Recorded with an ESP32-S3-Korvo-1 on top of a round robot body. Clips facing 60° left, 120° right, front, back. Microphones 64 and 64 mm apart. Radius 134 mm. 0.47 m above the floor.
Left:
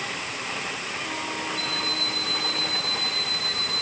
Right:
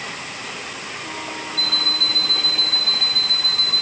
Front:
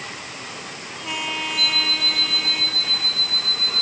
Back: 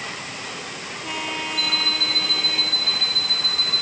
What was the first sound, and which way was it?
An alarm clock, 90° right.